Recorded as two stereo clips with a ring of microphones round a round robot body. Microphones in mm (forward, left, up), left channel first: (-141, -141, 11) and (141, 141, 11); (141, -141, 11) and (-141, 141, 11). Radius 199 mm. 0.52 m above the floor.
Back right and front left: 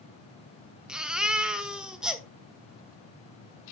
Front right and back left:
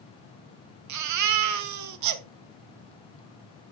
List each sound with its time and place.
0.9 s a baby crying: 130° left, 0.6 m